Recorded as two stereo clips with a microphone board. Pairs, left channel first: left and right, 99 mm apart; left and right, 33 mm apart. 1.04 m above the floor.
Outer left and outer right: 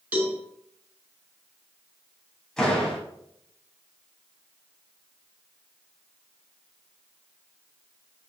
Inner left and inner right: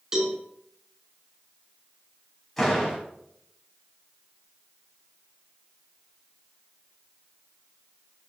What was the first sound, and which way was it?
A cowbell, 20° right (ahead or behind).